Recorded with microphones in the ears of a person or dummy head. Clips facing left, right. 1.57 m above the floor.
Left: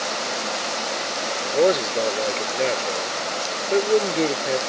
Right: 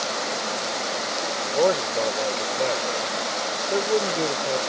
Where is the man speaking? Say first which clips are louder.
Left 3 dB; 20° left (ahead or behind).